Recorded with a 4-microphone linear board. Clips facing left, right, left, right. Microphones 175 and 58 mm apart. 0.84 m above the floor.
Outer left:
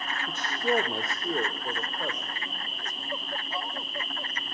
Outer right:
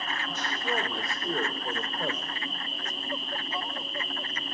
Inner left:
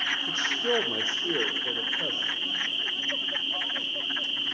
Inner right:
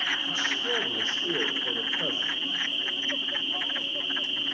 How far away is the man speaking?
About 1.7 m.